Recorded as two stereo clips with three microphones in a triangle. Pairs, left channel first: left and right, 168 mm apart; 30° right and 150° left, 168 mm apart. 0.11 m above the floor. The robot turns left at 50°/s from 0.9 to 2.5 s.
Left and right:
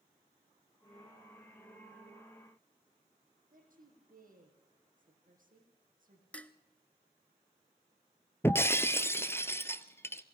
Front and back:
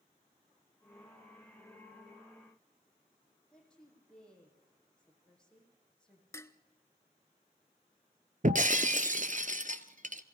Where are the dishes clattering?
20° left, 0.9 m.